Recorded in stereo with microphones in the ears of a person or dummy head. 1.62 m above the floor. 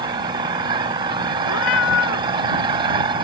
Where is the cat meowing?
70° left (ahead or behind).